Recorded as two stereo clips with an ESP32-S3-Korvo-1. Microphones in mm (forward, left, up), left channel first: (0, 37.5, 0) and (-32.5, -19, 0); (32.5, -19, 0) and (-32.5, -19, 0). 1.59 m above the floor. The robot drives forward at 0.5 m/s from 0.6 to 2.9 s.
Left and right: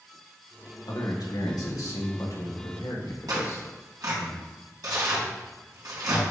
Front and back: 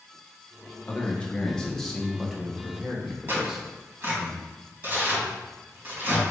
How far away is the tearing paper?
About 3.5 m.